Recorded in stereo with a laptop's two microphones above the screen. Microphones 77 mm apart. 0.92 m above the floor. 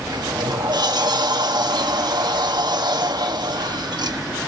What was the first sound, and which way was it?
A sliding door, 65° right (ahead or behind).